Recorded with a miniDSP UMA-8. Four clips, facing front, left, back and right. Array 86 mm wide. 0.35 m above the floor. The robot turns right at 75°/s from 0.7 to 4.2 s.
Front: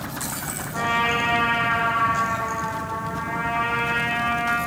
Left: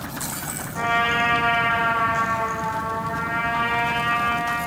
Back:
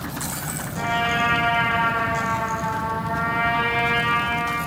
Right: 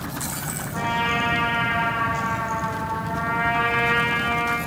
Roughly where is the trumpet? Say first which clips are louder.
Left 2 dB, even; ahead right.